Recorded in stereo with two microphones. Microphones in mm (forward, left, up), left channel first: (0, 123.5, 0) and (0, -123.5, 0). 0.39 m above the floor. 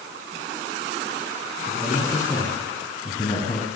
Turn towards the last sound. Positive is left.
turn(degrees=30)  # may be behind; listen again after turning